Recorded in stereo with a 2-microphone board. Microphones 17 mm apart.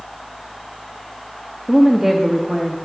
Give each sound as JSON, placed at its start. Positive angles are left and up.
{"t": 1.7, "sound": "a woman speaking", "side_deg": -30, "distance_m": 1.1}